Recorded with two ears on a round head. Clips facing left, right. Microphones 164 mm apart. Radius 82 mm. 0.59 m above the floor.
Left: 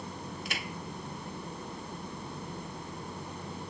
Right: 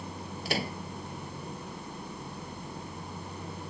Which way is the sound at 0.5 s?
30° right (ahead or behind).